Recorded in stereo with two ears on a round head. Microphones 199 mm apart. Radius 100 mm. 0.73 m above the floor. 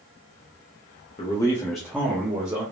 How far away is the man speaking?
About 0.8 m.